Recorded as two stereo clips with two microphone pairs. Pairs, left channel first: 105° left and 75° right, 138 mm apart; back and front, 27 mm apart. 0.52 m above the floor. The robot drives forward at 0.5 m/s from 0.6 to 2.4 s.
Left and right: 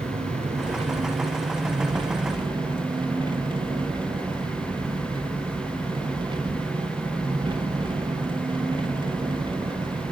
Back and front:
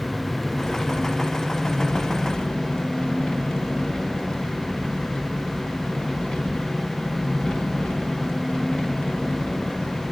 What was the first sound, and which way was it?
An engine running, 100° right.